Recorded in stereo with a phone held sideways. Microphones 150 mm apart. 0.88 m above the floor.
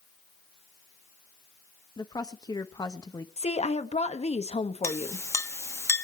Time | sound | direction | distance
2.0 | a woman speaking | 25° left (ahead or behind) | 1.0 m
3.4 | a woman speaking | 45° left (ahead or behind) | 1.3 m
4.8 | a clink | 20° left (ahead or behind) | 0.8 m